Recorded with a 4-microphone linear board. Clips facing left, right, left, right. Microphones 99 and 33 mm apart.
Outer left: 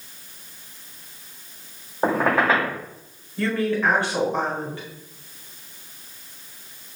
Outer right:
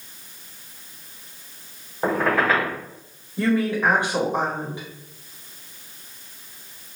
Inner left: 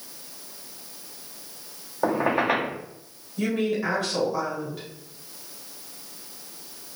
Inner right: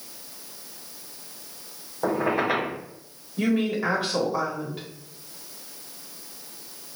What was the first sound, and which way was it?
A squeak, 20° left (ahead or behind).